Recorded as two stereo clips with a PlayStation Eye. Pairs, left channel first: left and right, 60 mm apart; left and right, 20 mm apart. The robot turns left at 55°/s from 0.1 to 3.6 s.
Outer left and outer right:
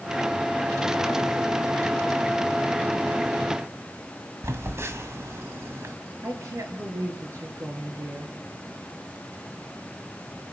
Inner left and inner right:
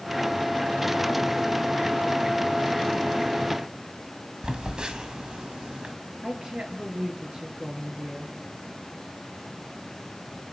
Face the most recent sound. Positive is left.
turn(degrees=-55)  # may be behind; listen again after turning